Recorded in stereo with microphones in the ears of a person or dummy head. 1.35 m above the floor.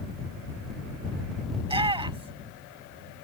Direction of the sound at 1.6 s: 20° right (ahead or behind).